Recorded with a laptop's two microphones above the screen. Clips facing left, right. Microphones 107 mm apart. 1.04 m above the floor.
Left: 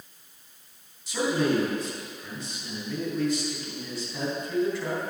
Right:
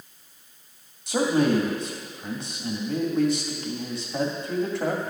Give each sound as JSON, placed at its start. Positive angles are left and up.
{"t": 1.1, "sound": "a man speaking", "side_deg": -65, "distance_m": 2.0}